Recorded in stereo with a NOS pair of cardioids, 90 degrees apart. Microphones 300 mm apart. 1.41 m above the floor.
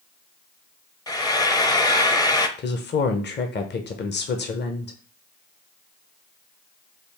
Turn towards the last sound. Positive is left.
turn(degrees=35)